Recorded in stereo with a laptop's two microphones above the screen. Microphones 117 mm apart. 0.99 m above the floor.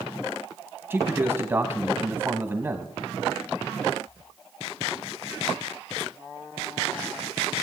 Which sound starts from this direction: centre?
A man speaking, at 0.9 s.